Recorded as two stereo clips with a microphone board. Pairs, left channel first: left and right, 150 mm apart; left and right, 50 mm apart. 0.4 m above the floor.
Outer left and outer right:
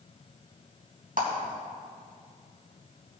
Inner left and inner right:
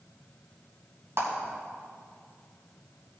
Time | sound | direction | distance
1.2 | a clap | 70° right (ahead or behind) | 3 m